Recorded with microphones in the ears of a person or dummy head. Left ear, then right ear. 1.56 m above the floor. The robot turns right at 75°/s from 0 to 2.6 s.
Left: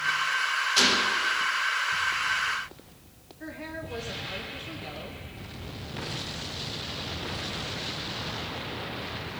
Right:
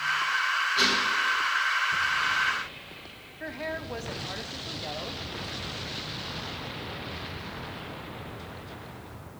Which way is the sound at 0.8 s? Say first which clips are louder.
Left 3 dB; 100° left.